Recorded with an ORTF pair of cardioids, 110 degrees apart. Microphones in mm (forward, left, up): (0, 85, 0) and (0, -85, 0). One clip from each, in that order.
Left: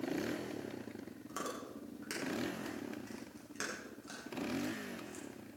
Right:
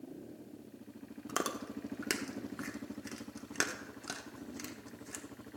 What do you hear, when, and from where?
1.3 s chewing: 60° right, 1.3 m